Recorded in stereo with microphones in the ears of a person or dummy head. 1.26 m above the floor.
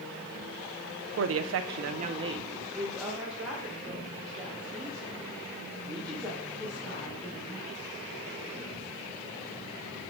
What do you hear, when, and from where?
1.2 s a woman speaking: 70° right (ahead or behind), 0.5 m; by 7.8 s 5° left (ahead or behind), 4 m